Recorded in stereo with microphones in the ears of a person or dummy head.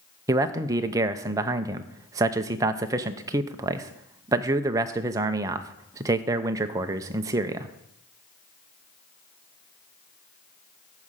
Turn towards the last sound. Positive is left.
turn(degrees=-15)  # may be behind; listen again after turning